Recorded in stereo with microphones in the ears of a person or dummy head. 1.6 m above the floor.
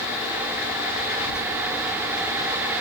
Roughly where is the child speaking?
Right.